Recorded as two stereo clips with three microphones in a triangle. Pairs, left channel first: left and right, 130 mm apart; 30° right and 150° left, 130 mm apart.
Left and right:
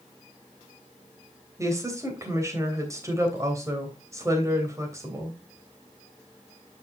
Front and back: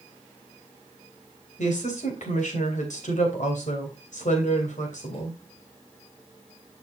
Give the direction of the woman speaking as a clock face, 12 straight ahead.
1 o'clock.